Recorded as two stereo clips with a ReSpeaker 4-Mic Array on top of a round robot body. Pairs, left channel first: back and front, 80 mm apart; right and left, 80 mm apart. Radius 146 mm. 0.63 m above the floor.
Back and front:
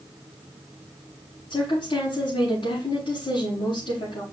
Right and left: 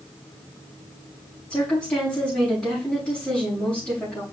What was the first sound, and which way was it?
A woman speaking, 170° right.